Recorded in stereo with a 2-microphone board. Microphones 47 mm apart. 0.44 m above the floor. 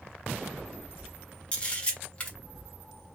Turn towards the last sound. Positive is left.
turn(degrees=25)  # may be behind; listen again after turning